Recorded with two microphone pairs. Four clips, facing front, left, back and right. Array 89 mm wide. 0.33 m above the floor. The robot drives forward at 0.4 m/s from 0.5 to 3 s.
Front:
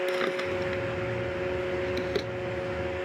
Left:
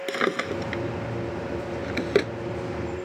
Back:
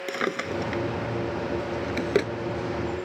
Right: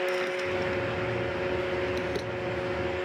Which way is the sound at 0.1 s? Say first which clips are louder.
Left 2 dB, even; 110° left.